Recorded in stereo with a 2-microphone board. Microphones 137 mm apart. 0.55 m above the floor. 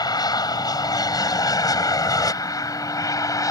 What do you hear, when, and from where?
0.0 s an aircraft: 30° left (ahead or behind); by 3.5 s 25° left (ahead or behind)